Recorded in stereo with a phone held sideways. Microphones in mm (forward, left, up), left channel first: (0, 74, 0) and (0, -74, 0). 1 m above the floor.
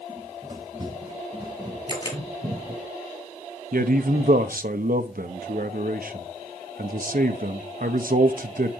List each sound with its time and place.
0.1 s running footsteps: 30° right (ahead or behind), 8 m; by 2.9 s 55° right (ahead or behind), 4.5 m
1.9 s a camera shutter: 30° left (ahead or behind), 5.5 m
3.7 s a man speaking: 70° right (ahead or behind), 1.0 m